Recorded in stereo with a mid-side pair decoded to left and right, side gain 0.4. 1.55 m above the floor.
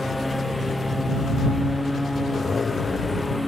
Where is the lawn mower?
10° left.